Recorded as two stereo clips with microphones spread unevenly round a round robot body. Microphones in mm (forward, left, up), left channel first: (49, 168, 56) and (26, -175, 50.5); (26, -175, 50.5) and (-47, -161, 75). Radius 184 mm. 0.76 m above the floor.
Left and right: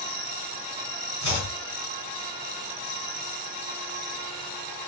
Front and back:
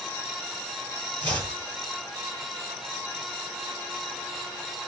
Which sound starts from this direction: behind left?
Chopping, at 1.2 s.